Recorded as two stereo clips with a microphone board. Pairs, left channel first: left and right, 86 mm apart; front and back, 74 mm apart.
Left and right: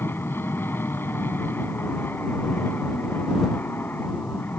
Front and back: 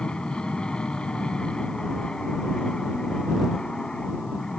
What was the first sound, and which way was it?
An aircraft, 65° left.